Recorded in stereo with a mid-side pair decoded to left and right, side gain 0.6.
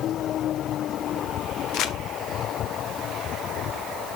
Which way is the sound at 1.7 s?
65° left.